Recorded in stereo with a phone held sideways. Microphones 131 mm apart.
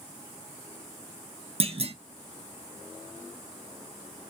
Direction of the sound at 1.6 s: 50° right (ahead or behind).